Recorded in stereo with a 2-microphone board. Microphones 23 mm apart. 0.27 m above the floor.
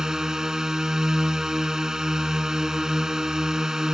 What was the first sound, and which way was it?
A drone, 20° right (ahead or behind).